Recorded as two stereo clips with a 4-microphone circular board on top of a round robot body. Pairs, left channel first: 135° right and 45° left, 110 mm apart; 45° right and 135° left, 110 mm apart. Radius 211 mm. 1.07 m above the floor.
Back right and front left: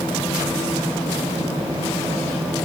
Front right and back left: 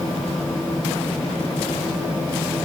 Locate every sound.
Only background noise.